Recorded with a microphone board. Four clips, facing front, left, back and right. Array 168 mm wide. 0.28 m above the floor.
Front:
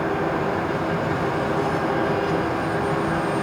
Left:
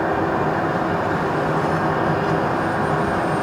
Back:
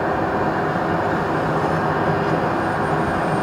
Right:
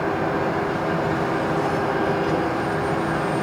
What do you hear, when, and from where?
Only background noise.